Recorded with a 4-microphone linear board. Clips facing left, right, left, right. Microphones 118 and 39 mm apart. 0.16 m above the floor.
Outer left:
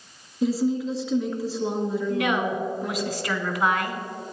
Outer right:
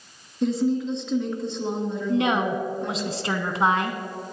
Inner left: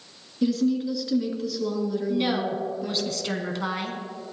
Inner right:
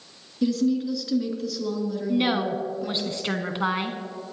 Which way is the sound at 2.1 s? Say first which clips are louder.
Outer right 5 dB, inner right 4 dB; 25° right (ahead or behind).